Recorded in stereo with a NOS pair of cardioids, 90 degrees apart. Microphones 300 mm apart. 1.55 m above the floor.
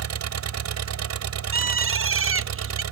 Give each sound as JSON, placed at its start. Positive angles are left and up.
{"t": 0.0, "sound": "an engine running", "azimuth_deg": -60}
{"t": 1.5, "sound": "a bird", "azimuth_deg": -45}